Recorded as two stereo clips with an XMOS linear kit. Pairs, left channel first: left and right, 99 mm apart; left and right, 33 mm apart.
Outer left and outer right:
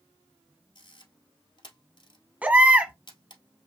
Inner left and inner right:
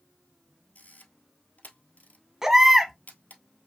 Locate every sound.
0.8 s a camera shutter: 50° left (ahead or behind), 1.1 m
2.4 s a baby crying: 15° right (ahead or behind), 1.1 m